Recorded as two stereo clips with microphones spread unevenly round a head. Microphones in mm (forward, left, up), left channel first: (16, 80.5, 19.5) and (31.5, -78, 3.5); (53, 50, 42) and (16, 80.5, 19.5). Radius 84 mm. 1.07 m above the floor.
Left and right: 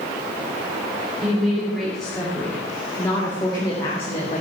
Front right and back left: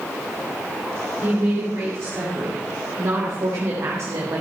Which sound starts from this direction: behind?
A woman speaking, at 1.2 s.